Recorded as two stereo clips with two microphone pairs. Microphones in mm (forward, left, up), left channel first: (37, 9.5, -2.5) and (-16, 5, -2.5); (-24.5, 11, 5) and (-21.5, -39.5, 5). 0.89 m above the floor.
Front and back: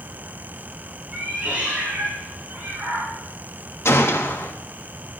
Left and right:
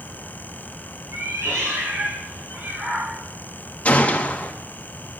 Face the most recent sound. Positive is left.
turn(degrees=35)